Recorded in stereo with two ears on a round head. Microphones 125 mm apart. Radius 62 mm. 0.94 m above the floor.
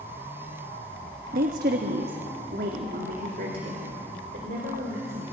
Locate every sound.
1.3 s a woman speaking: 65° right (ahead or behind), 1.2 m; by 5.2 s 60° right (ahead or behind), 4.5 m